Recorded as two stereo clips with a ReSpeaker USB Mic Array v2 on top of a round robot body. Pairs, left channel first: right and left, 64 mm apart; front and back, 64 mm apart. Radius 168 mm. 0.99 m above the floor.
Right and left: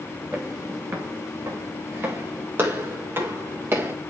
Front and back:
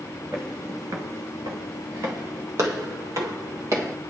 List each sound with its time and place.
0.3 s footsteps: 135° left, 0.9 m; by 3.9 s 145° left, 2.5 m